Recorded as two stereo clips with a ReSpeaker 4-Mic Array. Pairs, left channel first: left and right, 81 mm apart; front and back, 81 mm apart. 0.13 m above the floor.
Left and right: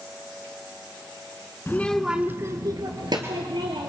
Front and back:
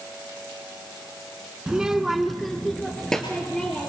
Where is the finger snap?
No finger snap in this recording.